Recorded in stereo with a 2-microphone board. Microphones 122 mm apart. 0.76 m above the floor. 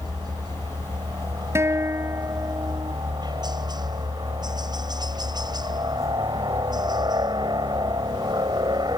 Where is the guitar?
20° right (ahead or behind).